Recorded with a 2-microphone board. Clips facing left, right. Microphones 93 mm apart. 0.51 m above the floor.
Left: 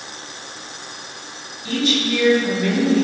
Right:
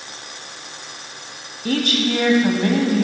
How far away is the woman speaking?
About 2.5 m.